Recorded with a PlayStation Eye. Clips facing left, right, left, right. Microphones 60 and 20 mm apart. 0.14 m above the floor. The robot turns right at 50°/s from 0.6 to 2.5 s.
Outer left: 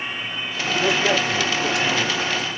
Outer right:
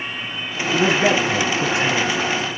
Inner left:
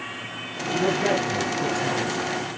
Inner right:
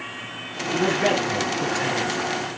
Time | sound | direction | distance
0.7 | a man speaking | 80° right | 3 m